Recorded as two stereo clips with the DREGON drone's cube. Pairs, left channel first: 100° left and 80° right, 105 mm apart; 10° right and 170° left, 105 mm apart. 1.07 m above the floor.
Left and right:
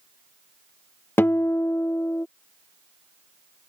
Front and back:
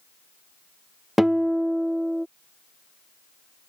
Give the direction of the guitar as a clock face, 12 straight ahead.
9 o'clock.